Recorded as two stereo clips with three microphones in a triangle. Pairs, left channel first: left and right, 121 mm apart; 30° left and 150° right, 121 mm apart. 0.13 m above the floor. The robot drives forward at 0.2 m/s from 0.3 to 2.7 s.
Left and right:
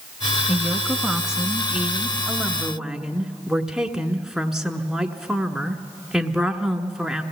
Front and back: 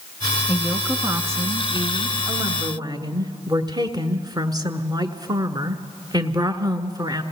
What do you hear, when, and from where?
0.5 s a woman speaking: 165° right, 1.0 m; by 7.2 s 175° right, 1.3 m